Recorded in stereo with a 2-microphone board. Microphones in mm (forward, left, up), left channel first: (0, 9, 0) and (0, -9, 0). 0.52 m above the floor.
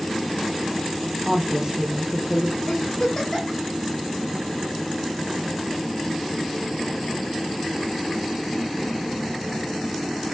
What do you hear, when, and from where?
1.2 s a woman speaking: 20° right (ahead or behind), 0.7 m
2.7 s a giggle: 45° left (ahead or behind), 1.7 m